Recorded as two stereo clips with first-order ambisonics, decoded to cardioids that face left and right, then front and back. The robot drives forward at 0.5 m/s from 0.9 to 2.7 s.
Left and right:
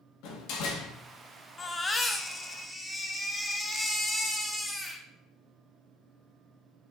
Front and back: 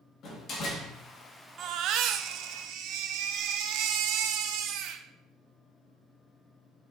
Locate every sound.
0.2 s a door slam: 60° left, 1.8 m
1.6 s a baby crying: 150° left, 0.6 m; by 5.0 s 170° left, 1.0 m